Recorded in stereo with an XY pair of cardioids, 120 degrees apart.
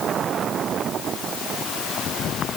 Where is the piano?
I don't hear a piano.